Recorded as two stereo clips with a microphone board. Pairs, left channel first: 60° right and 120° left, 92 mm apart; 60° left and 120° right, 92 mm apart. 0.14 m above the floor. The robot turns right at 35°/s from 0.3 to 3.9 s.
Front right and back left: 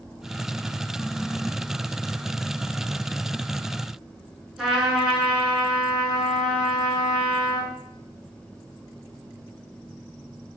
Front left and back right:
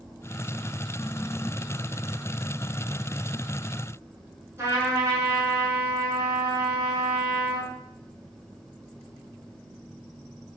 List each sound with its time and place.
4.6 s a trumpet: 155° right, 0.9 m